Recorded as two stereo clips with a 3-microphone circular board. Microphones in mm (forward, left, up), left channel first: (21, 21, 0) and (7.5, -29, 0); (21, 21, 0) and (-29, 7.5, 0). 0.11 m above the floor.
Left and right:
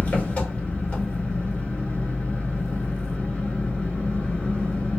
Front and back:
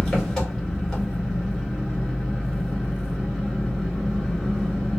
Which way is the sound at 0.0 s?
90° left.